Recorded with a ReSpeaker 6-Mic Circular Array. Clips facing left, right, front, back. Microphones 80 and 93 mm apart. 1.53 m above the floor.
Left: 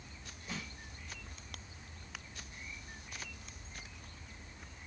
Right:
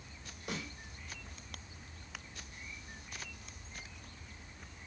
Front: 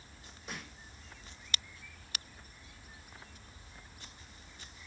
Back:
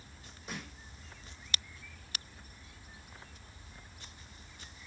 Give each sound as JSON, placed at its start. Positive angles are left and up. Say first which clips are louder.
{"t": 0.5, "sound": "a snare drum", "louder": "right 3 dB, back 2 dB", "azimuth_deg": -95, "distance_m": 6.0}